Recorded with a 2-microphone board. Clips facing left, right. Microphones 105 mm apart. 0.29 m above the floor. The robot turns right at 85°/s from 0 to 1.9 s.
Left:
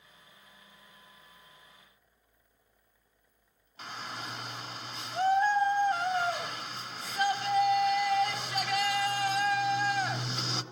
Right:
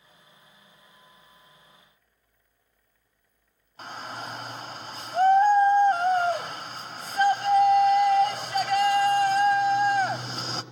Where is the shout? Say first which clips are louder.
Right 4 dB; 45° right (ahead or behind), 1.3 m.